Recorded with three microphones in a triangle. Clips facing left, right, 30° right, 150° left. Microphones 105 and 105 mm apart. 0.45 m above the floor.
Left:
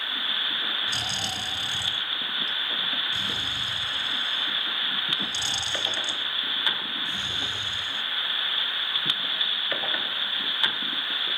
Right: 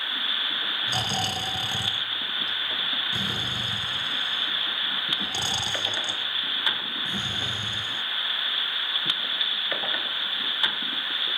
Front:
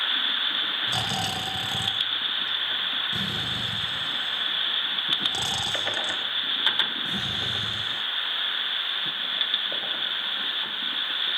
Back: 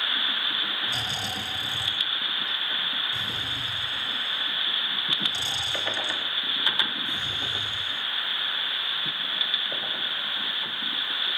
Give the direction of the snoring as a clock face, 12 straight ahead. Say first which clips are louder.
Right 5 dB, front 4 dB; 2 o'clock.